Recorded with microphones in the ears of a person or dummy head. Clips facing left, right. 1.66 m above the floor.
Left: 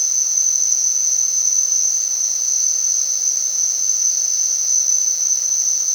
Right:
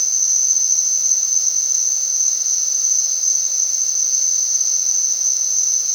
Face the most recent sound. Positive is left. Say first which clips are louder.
# even
turn(degrees=-35)  # may be behind; listen again after turning